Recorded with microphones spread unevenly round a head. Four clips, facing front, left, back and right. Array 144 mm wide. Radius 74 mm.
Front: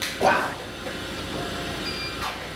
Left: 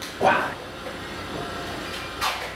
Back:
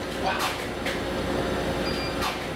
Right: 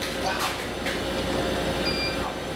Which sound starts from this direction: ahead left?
Whispering, at 0.2 s.